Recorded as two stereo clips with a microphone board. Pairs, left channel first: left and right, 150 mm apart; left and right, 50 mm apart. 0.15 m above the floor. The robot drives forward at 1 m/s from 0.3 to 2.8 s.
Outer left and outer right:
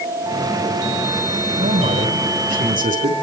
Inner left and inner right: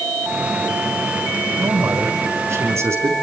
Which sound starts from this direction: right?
A man speaking, at 1.6 s.